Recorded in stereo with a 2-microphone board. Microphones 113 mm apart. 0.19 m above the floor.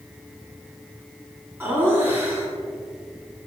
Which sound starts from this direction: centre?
Laughter, at 1.6 s.